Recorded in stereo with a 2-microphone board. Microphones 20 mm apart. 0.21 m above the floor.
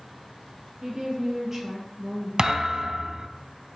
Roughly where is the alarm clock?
No alarm clock in this recording.